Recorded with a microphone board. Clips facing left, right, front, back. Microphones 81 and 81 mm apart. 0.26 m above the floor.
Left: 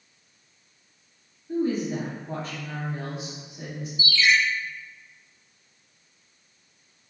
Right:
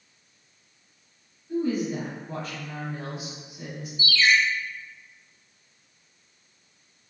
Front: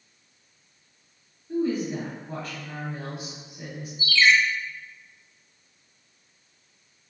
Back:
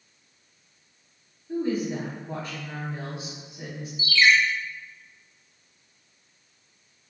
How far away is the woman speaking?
About 1.2 m.